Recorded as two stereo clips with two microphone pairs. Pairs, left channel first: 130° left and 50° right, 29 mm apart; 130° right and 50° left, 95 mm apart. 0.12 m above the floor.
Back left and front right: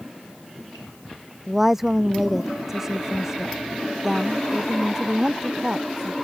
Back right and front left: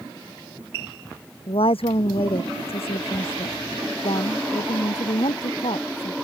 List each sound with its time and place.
1.5 s a woman speaking: 130° right; by 6.1 s 120° right